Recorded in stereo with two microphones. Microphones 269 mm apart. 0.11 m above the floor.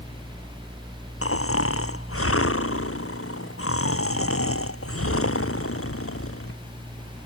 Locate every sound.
1.2 s snoring: 55° left (ahead or behind)